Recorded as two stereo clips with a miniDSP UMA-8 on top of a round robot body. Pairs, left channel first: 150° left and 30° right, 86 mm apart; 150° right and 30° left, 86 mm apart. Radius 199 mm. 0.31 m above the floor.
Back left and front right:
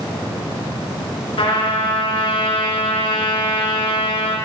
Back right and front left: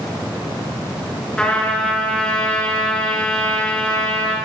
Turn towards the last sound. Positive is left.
turn(degrees=130)